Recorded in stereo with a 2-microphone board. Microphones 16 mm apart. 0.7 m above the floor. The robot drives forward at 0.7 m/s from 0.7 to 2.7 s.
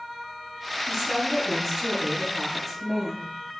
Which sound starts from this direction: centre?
A woman speaking, at 0.9 s.